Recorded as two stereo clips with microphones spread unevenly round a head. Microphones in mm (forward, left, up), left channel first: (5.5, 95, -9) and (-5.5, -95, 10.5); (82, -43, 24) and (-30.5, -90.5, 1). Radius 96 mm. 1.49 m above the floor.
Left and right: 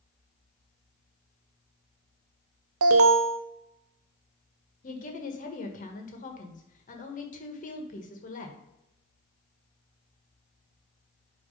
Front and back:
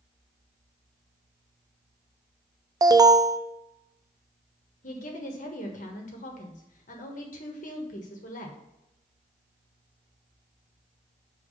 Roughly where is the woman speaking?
Ahead left.